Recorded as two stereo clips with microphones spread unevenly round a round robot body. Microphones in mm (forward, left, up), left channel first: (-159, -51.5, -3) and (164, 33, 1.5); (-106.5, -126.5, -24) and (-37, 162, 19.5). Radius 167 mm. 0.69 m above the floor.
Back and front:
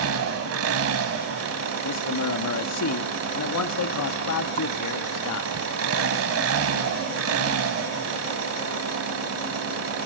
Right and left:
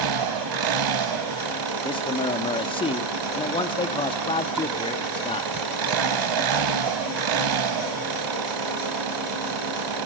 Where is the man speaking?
160° right, 1.4 m.